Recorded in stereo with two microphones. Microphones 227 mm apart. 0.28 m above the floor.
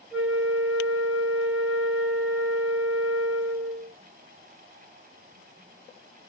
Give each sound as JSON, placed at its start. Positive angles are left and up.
{"t": 0.1, "sound": "a flute", "side_deg": -5, "distance_m": 1.2}